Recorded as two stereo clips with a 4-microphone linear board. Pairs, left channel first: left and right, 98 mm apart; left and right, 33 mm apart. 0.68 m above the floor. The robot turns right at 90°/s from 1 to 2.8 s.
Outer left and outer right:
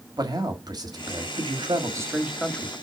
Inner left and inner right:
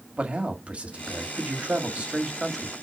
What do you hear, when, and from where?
0.2 s a man speaking: 125° right, 1.7 m; by 2.7 s 30° left, 1.7 m